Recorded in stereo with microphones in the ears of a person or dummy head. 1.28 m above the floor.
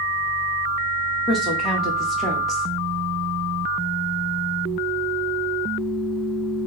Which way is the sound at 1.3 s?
Centre (ahead or behind).